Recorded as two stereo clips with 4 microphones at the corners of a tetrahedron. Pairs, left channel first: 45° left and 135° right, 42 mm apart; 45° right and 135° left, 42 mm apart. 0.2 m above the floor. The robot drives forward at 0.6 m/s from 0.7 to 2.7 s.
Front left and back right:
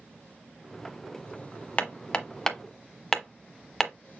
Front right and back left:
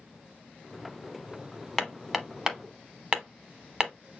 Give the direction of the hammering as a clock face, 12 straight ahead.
11 o'clock.